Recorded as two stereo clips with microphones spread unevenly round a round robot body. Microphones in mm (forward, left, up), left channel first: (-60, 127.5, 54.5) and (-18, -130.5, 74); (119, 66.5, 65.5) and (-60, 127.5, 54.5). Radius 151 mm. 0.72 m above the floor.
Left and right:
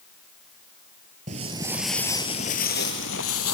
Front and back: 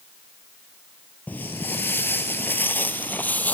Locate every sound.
1.3 s footsteps: 85° right, 0.7 m; by 3.5 s 60° left, 1.2 m